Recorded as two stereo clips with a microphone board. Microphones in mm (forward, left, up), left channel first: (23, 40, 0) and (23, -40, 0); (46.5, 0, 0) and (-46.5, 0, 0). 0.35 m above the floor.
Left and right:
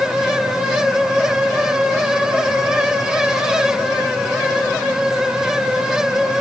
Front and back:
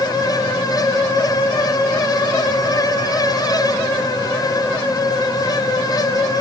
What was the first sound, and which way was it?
Only background noise.